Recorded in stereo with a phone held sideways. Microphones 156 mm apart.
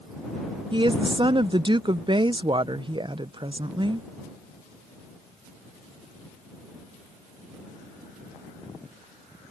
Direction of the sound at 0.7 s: 30° right (ahead or behind).